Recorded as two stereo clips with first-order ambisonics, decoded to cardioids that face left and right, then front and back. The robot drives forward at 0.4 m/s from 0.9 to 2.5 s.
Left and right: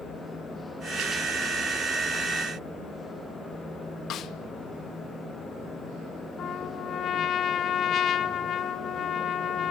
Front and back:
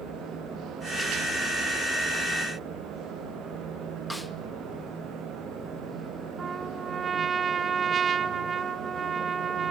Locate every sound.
4.1 s a snare drum: 85° left, 0.5 m
6.4 s a trumpet: 120° left, 0.7 m